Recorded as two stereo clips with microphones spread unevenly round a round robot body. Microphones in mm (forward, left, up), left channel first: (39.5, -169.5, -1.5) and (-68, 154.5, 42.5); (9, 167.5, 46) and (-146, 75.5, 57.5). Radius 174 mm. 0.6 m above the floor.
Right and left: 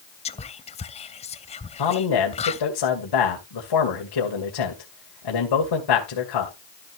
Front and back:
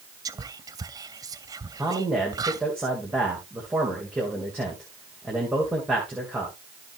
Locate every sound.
0.2 s whispering: 95° right, 0.6 m
1.8 s a man speaking: 65° right, 2 m